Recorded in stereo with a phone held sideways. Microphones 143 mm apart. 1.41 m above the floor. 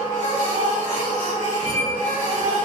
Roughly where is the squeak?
Left.